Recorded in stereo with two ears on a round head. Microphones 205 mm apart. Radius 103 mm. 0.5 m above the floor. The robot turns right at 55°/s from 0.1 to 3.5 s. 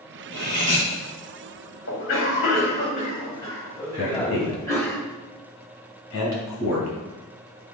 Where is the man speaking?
65° left (ahead or behind), 3 m.